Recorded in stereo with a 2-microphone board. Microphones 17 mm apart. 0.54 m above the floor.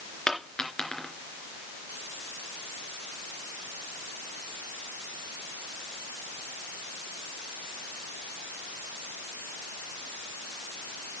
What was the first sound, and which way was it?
A dropped coin, 45° left (ahead or behind).